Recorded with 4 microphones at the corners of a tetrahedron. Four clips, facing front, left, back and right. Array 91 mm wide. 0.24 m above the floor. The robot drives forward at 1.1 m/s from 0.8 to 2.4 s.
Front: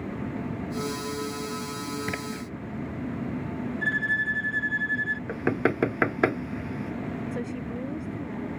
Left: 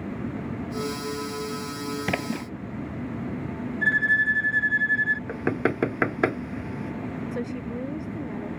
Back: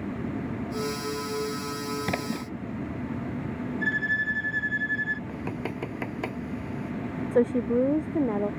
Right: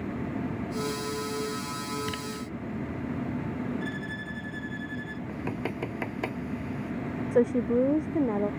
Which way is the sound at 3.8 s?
100° left.